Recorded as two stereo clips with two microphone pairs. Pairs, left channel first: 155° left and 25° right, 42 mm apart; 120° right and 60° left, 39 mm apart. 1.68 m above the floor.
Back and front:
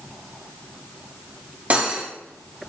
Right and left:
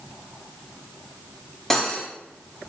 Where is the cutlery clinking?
50° right, 0.8 m.